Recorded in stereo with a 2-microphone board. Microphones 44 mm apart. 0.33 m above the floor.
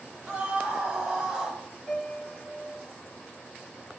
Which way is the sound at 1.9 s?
10° left (ahead or behind).